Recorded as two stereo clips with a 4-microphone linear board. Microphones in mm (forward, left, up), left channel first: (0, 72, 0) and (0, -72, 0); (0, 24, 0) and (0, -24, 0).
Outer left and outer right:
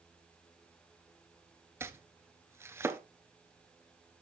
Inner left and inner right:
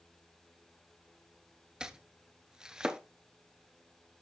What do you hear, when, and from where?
1.8 s chopping: 15° right (ahead or behind), 0.7 m